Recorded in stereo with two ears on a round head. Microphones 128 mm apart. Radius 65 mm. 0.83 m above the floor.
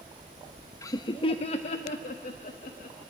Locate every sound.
0.8 s laughter: 20° left (ahead or behind), 0.5 m; by 3.0 s 60° left (ahead or behind), 1.5 m